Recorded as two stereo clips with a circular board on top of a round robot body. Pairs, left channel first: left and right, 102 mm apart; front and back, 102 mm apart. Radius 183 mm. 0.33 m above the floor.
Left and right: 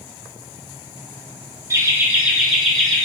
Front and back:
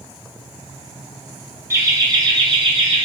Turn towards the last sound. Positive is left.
turn(degrees=170)